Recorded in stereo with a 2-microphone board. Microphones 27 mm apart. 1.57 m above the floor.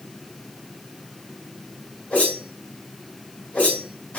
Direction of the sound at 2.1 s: 75° left (ahead or behind).